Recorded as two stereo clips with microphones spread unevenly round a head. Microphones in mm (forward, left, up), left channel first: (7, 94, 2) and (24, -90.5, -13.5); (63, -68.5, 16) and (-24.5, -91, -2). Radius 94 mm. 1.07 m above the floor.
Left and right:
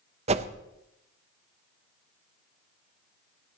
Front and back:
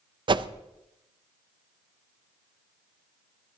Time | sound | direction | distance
0.3 | a whoosh | 140° right | 0.8 m